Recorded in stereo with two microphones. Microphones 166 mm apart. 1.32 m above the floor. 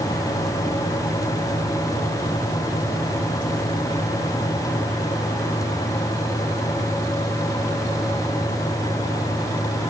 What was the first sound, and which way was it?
Only background noise.